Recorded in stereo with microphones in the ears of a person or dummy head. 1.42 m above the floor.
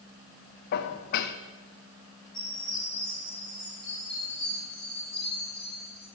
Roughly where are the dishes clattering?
Left.